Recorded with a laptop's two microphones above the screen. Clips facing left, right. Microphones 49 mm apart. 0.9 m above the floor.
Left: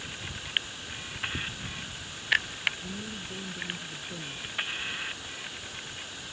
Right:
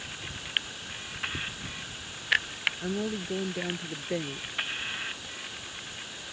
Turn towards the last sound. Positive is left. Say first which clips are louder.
# right 7 dB
turn(degrees=-85)